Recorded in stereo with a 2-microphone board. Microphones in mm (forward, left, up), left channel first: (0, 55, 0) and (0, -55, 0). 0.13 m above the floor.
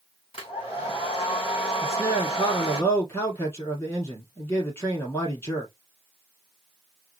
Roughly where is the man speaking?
Left.